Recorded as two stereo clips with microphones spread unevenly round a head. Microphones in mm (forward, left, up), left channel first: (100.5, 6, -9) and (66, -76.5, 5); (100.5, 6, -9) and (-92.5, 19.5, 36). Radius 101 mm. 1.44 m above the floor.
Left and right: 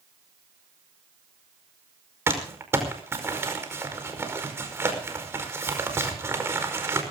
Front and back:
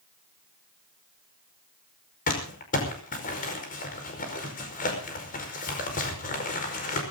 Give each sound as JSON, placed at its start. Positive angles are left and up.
{"t": 2.3, "sound": "crumpling", "azimuth_deg": -55, "distance_m": 5.0}